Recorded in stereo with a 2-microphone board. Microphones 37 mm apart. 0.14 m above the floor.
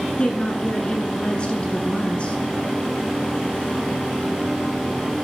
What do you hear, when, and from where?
0.2 s a woman speaking: 30° left (ahead or behind), 1.4 m